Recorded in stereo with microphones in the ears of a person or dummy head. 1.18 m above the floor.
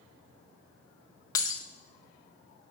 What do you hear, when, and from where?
1.4 s breaking glass: 15° left (ahead or behind), 0.6 m